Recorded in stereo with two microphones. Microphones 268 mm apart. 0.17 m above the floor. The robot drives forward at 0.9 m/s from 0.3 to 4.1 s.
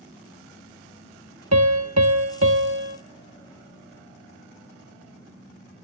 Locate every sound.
1.5 s a piano: 70° right (ahead or behind), 1.0 m; by 3.0 s 40° right (ahead or behind), 1.4 m